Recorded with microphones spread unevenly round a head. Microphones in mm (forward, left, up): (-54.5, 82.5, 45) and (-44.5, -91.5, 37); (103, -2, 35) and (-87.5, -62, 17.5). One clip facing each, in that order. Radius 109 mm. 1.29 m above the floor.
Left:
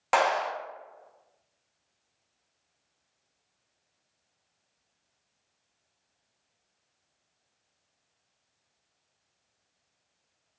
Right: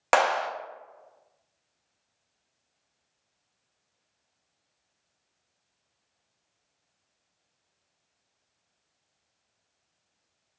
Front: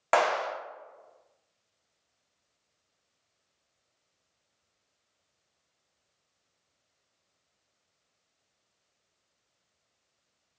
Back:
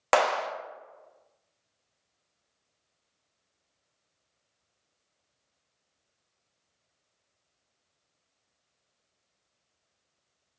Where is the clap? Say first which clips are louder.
Right 2 dB, back 1 dB; 120° right, 1.1 m.